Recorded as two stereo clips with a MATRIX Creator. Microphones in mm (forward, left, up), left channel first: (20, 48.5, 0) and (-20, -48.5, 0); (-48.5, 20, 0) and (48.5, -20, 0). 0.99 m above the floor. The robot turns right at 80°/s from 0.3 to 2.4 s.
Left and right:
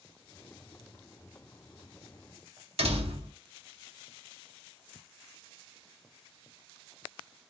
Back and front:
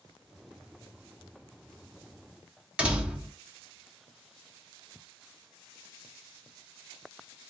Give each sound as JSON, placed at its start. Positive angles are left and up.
{"t": 2.8, "sound": "a door slam", "azimuth_deg": -100, "distance_m": 0.8}